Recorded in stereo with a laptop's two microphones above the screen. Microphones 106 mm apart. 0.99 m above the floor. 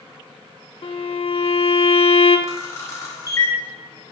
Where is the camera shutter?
30° left (ahead or behind), 3.5 m.